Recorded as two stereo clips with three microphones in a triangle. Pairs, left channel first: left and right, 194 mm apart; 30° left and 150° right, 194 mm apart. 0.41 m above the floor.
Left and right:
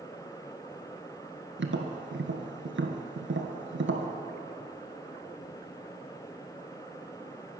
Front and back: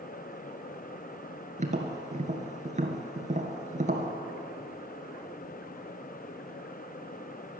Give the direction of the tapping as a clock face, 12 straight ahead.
3 o'clock.